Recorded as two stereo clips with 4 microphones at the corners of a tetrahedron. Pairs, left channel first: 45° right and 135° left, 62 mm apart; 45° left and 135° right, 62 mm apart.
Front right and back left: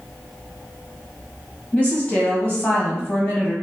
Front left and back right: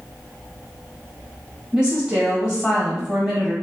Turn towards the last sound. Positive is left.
turn(degrees=-80)